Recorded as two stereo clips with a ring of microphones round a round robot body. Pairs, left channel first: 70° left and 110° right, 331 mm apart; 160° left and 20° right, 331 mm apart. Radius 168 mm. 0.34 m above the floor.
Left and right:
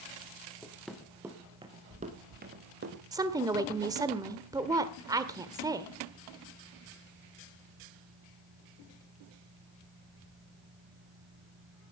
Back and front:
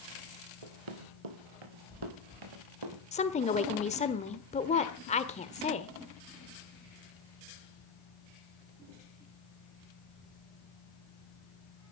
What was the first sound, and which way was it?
Running footsteps, 15° right.